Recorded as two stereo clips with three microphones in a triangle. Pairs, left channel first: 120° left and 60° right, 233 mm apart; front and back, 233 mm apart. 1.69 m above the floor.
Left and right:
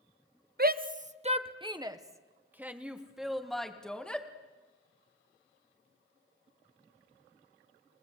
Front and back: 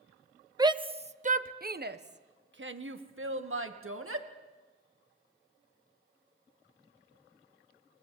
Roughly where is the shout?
Right.